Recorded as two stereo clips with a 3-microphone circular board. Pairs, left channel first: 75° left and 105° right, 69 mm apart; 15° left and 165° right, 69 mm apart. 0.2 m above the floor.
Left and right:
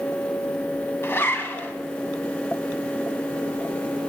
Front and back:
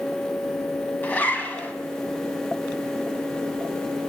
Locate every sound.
1.0 s a zipper: 60° left, 0.9 m